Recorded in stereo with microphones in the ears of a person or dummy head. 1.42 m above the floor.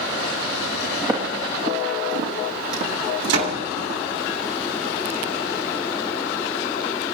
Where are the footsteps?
15° right (ahead or behind), 3.5 m; by 4.0 s 55° right (ahead or behind), 5.5 m.